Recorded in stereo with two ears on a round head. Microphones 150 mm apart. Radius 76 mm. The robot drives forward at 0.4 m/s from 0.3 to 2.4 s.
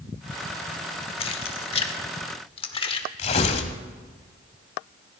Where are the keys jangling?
35° left (ahead or behind), 0.9 m; by 3.1 s 30° left (ahead or behind), 1.0 m.